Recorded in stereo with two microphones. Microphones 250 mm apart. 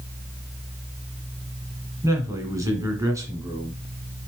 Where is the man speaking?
10° right (ahead or behind), 2 m.